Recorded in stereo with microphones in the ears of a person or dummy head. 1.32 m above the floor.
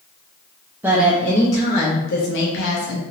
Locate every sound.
0.8 s a woman speaking: 10° right (ahead or behind), 0.7 m; by 3.0 s 70° left (ahead or behind), 0.9 m